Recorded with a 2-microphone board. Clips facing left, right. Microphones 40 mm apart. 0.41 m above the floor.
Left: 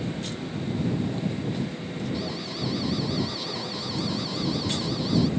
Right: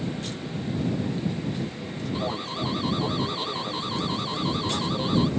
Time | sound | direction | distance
2.1 | an alarm | 35° right (ahead or behind) | ?